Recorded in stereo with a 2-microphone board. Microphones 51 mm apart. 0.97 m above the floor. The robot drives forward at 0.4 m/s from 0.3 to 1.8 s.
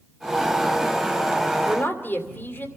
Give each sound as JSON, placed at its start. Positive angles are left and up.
{"t": 1.6, "sound": "a man speaking", "side_deg": 40, "distance_m": 2.5}